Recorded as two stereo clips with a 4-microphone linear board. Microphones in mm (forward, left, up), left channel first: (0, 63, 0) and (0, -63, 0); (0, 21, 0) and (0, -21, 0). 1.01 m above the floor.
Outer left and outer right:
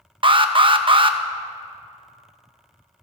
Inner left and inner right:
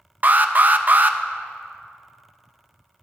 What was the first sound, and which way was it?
An alarm, 40° right (ahead or behind).